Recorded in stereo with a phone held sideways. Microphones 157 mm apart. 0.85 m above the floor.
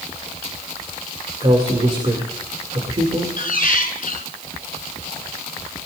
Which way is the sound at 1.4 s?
40° right (ahead or behind).